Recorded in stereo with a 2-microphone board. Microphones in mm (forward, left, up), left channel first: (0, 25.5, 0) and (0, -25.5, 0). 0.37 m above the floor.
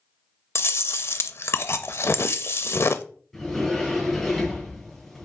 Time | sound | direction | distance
0.6 | chewing | 55° left (ahead or behind) | 0.6 m
3.3 | a sliding door | centre (ahead or behind) | 5 m